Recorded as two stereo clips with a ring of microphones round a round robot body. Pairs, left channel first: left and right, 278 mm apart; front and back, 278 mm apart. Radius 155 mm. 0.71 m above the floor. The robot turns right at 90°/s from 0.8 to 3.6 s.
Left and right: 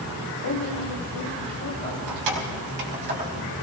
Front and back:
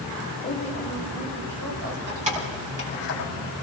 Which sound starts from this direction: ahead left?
A woman speaking, at 0.4 s.